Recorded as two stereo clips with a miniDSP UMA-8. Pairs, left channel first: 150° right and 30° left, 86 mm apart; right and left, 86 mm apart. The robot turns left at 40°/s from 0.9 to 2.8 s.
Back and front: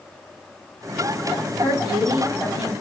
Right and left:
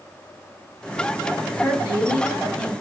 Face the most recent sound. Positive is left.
turn(degrees=-175)